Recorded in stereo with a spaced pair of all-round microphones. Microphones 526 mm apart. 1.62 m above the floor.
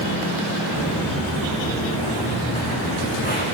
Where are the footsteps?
Centre (ahead or behind), 5 m; by 3.4 s 15° left (ahead or behind), 6 m.